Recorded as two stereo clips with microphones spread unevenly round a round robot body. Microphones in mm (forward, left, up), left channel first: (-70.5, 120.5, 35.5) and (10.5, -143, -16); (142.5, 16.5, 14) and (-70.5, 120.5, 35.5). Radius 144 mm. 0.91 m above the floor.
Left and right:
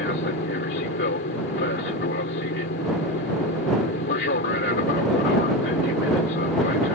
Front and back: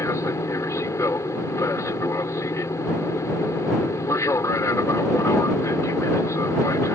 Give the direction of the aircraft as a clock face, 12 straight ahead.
10 o'clock.